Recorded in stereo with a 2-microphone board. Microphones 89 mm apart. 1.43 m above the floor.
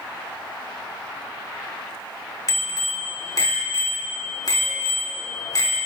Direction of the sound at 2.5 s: 45° left (ahead or behind).